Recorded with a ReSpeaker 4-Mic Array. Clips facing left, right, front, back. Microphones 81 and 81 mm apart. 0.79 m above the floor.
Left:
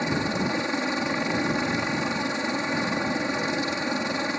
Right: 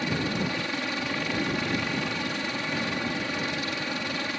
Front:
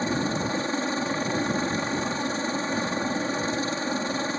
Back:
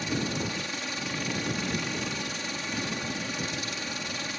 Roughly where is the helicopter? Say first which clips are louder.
Left 3 dB, front 5 dB; ahead left.